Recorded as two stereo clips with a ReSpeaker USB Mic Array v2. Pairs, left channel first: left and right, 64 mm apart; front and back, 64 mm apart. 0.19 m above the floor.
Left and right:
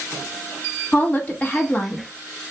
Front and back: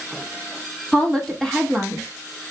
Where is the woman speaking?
65° left, 1.0 m.